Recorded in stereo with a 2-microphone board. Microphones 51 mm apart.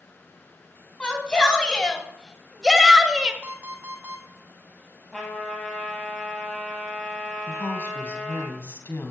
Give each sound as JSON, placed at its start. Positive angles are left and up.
{"t": 1.0, "sound": "a shout", "side_deg": 20, "distance_m": 3.5}
{"t": 3.4, "sound": "an alarm clock", "side_deg": -30, "distance_m": 1.8}
{"t": 5.1, "sound": "a trumpet", "side_deg": 10, "distance_m": 4.5}
{"t": 7.5, "sound": "a woman speaking", "side_deg": 55, "distance_m": 2.5}